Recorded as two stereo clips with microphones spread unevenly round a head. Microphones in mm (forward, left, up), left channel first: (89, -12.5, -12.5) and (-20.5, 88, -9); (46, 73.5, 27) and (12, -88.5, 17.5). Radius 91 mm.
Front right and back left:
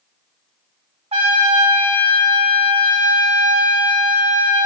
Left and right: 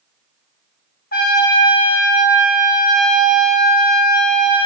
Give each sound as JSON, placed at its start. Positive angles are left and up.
{"t": 1.1, "sound": "a trumpet", "azimuth_deg": 100, "distance_m": 1.1}